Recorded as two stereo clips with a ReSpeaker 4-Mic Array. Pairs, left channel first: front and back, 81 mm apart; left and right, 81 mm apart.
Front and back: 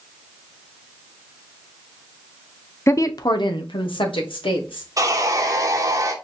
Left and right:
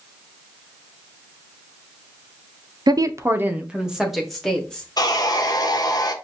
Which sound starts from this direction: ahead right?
A woman speaking, at 2.9 s.